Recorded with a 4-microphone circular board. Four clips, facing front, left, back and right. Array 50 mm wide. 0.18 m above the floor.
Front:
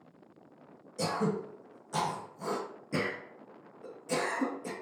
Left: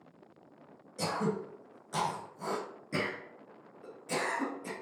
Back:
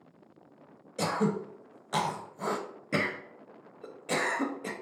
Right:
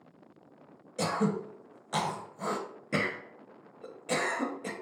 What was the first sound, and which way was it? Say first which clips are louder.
Throat clearing: right 3 dB, back 2 dB; 145° right.